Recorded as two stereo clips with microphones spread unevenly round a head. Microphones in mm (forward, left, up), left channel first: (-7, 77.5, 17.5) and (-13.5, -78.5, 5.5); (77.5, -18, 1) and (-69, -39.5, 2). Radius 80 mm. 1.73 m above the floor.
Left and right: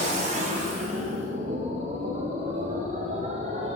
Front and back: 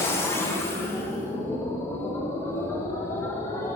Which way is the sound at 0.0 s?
60° right.